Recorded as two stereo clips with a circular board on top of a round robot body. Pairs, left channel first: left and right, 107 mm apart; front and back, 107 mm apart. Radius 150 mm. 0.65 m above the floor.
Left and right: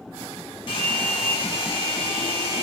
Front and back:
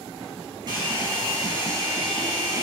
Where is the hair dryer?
130° left, 4.5 m.